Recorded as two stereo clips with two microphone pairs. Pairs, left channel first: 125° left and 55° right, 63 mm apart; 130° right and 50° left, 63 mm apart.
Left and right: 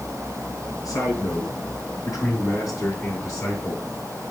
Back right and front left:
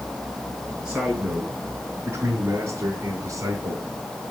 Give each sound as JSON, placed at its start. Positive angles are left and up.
{"t": 0.8, "sound": "a man speaking", "azimuth_deg": 125, "distance_m": 5.0}